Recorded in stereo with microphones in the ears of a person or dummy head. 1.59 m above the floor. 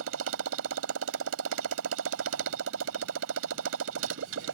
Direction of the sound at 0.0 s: 75° right (ahead or behind).